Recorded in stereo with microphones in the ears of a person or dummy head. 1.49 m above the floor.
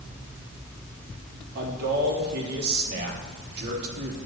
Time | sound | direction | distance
1.6 | a man speaking | 65° right (ahead or behind) | 4 m